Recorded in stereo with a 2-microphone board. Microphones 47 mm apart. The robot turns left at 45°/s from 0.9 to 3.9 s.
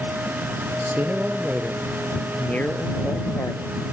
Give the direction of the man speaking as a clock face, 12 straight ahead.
5 o'clock.